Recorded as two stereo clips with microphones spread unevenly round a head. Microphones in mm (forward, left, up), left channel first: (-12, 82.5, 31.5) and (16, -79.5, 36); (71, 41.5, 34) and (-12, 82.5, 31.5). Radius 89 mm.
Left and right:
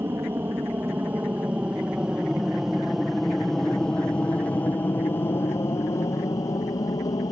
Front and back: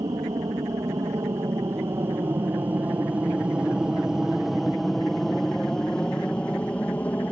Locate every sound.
0.0 s an aircraft: 155° right; by 7.3 s 40° left